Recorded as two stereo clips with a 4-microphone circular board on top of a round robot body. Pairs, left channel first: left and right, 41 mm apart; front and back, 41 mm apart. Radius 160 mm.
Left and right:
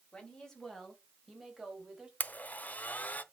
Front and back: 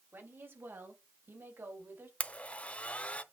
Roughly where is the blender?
Ahead left.